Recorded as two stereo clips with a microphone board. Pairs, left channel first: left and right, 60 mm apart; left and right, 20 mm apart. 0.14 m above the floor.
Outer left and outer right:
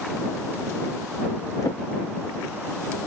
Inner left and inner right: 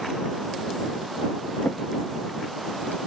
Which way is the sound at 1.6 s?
75° left (ahead or behind).